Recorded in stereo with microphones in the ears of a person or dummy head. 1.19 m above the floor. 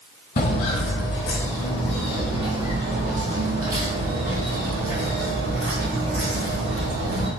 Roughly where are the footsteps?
Left.